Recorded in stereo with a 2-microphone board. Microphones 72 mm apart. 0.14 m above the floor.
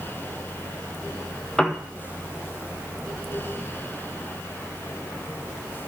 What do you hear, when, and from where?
1.6 s a piano: 15° left (ahead or behind), 1.2 m